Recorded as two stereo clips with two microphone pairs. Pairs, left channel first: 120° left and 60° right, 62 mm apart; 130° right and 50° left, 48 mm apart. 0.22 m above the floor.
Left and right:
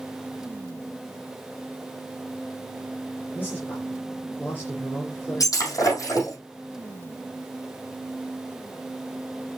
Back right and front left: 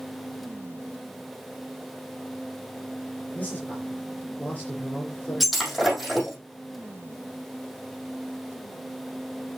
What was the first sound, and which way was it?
A man speaking, 170° left.